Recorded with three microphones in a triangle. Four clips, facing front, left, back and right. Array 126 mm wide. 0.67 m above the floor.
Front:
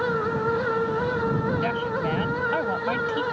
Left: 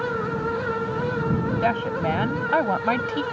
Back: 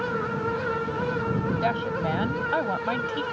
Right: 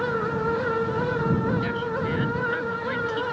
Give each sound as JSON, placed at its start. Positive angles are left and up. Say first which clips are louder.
{"t": 1.6, "sound": "a woman speaking", "louder": "left 4 dB, even", "azimuth_deg": 115}